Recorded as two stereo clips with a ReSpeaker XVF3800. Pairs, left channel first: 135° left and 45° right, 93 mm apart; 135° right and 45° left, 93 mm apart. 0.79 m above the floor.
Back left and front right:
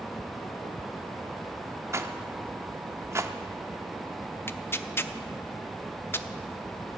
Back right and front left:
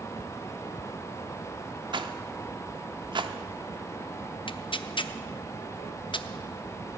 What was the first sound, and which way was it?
A rattle, 15° left.